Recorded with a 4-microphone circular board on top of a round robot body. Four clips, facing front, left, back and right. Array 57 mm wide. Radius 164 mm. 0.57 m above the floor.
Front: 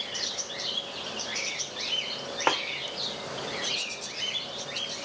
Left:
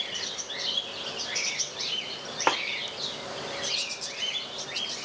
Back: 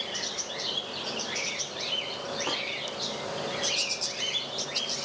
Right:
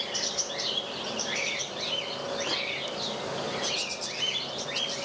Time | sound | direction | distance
2.5 | a snare drum | 40° left | 1.1 m